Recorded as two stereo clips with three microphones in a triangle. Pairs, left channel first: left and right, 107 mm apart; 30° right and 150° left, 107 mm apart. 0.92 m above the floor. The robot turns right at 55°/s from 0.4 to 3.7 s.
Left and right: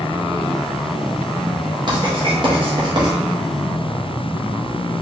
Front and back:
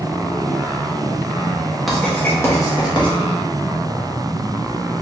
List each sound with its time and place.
1.9 s writing: 120° right, 1.4 m; by 3.1 s 50° right, 1.4 m